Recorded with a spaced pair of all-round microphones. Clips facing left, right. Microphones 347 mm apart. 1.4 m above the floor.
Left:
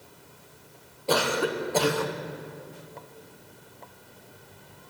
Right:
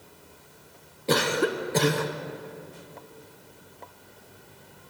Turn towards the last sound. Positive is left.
turn(degrees=-30)  # may be behind; listen again after turning